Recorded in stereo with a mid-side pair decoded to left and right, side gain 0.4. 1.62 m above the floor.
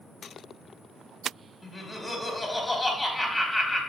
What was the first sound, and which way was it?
Laughter, 20° left.